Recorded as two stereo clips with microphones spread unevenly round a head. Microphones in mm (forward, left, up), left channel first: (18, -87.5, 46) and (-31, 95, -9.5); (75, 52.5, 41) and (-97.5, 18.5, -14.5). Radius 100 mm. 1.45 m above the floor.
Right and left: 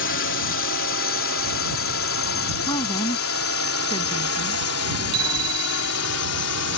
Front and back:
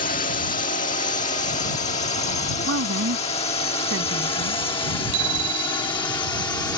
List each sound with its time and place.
0.0 s a drone: 45° right; by 6.8 s 65° right
2.7 s a woman speaking: 140° right
5.1 s a bicycle bell: 175° left